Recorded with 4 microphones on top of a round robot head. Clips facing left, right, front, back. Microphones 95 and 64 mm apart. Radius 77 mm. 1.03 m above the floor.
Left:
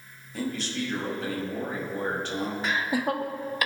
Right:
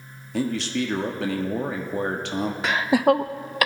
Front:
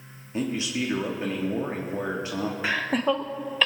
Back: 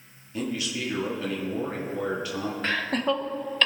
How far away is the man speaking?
About 1.6 m.